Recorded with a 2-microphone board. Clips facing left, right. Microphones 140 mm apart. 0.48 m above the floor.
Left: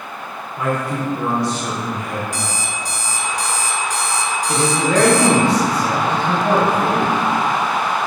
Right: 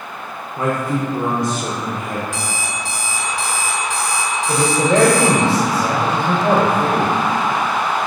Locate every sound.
0.6 s a man speaking: 45° right (ahead or behind), 1.0 m
2.3 s an alarm clock: 65° right (ahead or behind), 1.7 m
4.5 s a man speaking: 45° right (ahead or behind), 1.7 m